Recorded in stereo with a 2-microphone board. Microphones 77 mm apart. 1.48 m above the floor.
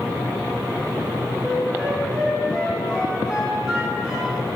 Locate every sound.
1.4 s a flute: 10° right (ahead or behind), 6 m